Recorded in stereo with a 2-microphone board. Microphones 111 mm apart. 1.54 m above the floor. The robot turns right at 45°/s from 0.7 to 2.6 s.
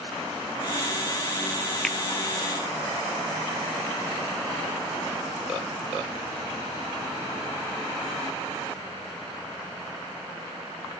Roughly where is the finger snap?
Centre.